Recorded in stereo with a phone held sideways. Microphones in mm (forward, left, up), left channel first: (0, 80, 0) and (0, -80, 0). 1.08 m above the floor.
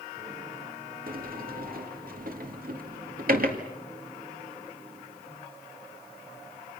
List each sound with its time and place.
1.1 s a sliding door: 65° right (ahead or behind), 2.5 m